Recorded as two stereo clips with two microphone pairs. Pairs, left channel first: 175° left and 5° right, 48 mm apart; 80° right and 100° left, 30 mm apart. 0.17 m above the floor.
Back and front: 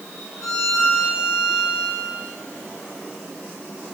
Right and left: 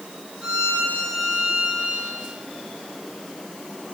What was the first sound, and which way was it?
A violin, 165° left.